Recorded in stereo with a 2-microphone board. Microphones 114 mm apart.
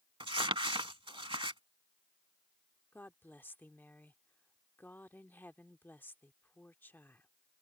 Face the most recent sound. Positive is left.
turn(degrees=15)  # may be behind; listen again after turning